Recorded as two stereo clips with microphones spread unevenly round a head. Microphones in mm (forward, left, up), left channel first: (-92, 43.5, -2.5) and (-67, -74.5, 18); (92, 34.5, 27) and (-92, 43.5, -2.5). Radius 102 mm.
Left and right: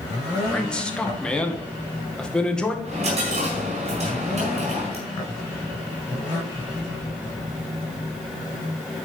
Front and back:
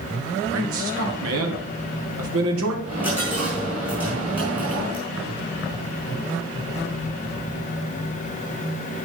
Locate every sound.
0.5 s a man speaking: 175° right, 2.5 m
2.9 s a dropped coin: 95° right, 5 m